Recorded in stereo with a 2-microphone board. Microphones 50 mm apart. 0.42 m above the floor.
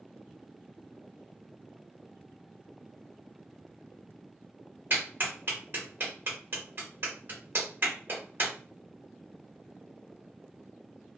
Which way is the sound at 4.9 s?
45° right (ahead or behind).